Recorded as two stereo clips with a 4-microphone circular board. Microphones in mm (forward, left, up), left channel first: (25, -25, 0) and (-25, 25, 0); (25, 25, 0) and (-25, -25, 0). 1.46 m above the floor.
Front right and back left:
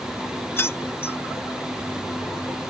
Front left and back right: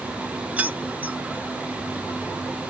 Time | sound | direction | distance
0.6 | keys jangling | 80° right | ?